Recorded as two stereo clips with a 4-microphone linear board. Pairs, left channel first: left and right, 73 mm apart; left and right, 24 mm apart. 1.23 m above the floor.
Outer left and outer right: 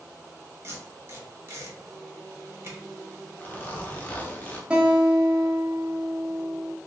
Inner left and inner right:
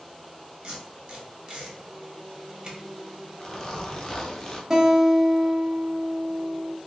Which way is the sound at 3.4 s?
25° left (ahead or behind).